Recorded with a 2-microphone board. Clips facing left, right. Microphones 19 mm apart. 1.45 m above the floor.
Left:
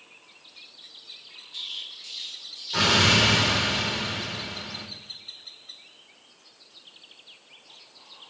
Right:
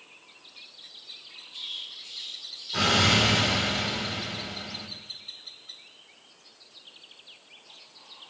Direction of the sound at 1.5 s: 35° left (ahead or behind).